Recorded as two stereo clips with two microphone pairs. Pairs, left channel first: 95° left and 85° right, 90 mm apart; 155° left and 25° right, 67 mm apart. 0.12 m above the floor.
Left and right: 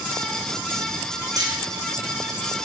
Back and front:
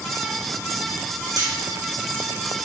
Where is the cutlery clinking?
40° right, 3 m.